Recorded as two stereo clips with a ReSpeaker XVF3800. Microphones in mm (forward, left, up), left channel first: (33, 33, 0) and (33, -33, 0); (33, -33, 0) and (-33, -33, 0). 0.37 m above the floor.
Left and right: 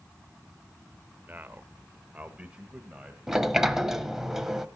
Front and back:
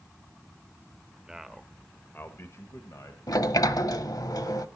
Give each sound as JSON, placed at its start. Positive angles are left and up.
{"t": 1.3, "sound": "a man speaking", "azimuth_deg": -115, "distance_m": 1.0}
{"t": 3.3, "sound": "a sliding door", "azimuth_deg": -5, "distance_m": 0.9}